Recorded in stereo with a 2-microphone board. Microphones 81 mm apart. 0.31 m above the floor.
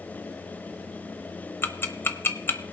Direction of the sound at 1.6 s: 30° left (ahead or behind).